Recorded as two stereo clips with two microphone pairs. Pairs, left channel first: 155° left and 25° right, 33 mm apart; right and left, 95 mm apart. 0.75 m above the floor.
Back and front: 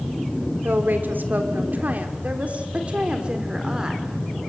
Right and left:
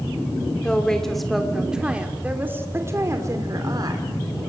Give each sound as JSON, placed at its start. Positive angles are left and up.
{"t": 0.6, "sound": "a woman speaking", "azimuth_deg": -10, "distance_m": 2.5}